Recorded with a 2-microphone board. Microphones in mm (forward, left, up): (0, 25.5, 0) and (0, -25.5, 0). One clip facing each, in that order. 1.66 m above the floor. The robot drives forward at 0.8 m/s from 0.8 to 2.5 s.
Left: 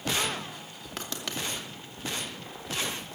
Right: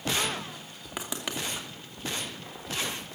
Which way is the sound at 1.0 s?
15° right (ahead or behind).